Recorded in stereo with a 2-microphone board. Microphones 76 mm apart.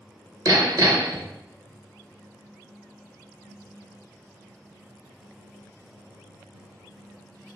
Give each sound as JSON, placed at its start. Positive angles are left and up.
{"t": 0.5, "sound": "hammering", "side_deg": -50, "distance_m": 1.1}